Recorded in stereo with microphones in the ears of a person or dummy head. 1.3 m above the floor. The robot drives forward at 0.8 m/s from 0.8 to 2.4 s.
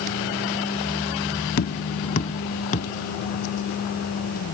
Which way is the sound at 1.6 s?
50° left (ahead or behind).